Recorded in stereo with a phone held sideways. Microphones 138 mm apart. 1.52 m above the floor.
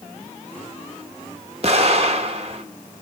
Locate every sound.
1.6 s an explosion: 45° right (ahead or behind), 1.4 m